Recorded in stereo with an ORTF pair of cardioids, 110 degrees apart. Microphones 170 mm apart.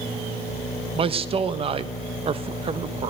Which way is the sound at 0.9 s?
35° right.